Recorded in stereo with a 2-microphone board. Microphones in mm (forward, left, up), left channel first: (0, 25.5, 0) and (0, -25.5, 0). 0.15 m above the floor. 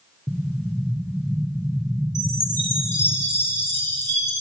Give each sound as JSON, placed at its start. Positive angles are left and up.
{"t": 0.3, "sound": "an explosion", "side_deg": -5, "distance_m": 1.6}
{"t": 2.1, "sound": "a chime", "side_deg": 55, "distance_m": 4.0}